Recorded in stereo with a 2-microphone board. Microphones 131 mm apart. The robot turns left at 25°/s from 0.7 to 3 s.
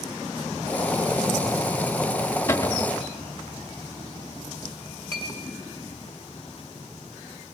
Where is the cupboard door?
20° left (ahead or behind), 0.6 m; by 3.0 s 25° left (ahead or behind), 0.6 m.